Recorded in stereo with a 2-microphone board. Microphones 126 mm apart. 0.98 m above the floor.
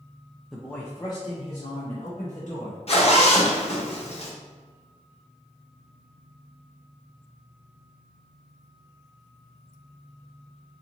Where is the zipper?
55° left (ahead or behind), 0.8 m.